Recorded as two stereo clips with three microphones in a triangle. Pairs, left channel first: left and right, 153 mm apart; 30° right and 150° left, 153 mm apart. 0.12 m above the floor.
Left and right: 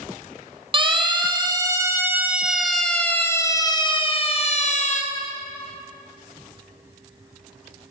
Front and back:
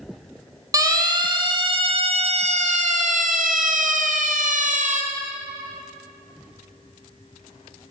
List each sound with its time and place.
0.7 s a siren: 145° right, 3.5 m; by 5.0 s 120° left, 3 m